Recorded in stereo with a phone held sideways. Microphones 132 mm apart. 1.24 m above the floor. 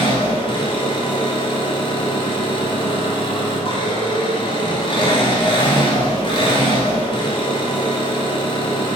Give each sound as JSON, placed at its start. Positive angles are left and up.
{"t": 0.0, "sound": "an engine running", "side_deg": 40, "distance_m": 3.0}